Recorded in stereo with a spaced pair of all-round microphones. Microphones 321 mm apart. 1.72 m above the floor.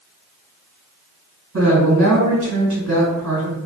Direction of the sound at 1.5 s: 65° right (ahead or behind).